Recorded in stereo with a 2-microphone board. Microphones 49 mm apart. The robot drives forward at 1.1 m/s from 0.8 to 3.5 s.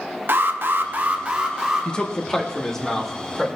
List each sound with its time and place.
0.3 s an alarm: 50° right (ahead or behind), 0.6 m; by 1.9 s 15° right (ahead or behind), 1.6 m
1.9 s a man speaking: 20° left (ahead or behind), 0.7 m; by 3.5 s 5° left (ahead or behind), 2.5 m